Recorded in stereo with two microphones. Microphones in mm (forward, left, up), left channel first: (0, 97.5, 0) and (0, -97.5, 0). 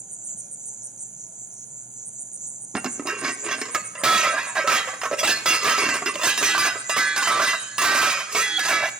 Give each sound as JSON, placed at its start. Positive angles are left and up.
{"t": 0.0, "sound": "an insect", "side_deg": -5, "distance_m": 1.2}
{"t": 2.7, "sound": "dishes clattering", "side_deg": -5, "distance_m": 0.6}